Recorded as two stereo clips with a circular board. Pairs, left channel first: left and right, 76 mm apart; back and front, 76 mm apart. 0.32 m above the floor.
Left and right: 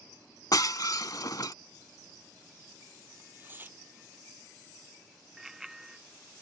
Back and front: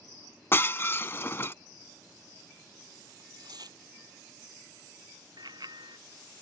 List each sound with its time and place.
0.5 s breaking glass: 125° left
3.2 s tearing paper: 25° right
5.4 s a bicycle bell: 5° right